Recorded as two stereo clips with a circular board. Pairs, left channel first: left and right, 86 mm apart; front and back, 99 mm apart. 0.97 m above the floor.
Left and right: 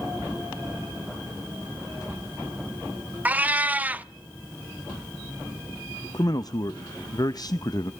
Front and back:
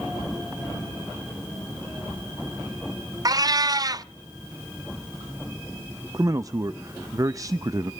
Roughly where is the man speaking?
Behind left.